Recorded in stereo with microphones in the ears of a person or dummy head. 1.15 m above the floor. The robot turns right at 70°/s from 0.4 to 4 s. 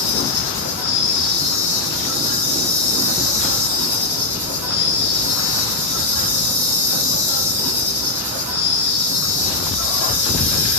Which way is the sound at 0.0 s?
85° left.